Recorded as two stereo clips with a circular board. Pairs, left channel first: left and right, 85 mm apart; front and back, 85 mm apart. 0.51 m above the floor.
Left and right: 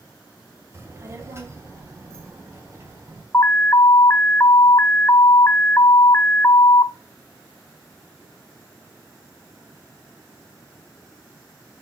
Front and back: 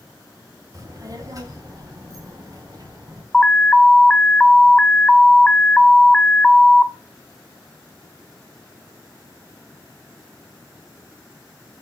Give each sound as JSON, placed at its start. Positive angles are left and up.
{"t": 0.7, "sound": "a child speaking", "azimuth_deg": -140, "distance_m": 2.0}
{"t": 3.3, "sound": "an alarm", "azimuth_deg": 70, "distance_m": 0.5}